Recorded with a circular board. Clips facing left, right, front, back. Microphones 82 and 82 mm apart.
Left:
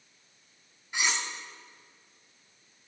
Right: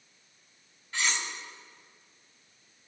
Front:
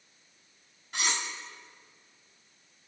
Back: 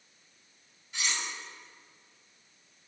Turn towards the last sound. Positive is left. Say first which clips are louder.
# left 1 dB, front 3 dB
turn(degrees=15)